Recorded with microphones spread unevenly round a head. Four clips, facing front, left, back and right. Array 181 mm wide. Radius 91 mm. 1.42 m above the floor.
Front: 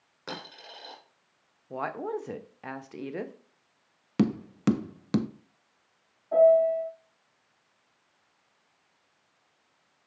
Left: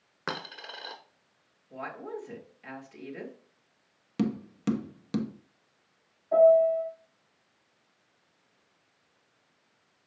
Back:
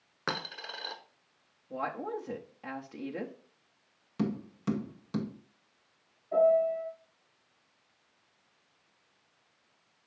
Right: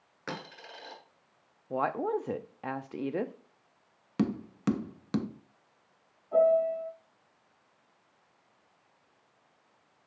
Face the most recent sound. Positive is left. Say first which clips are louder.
# left 5 dB, front 5 dB
turn(degrees=55)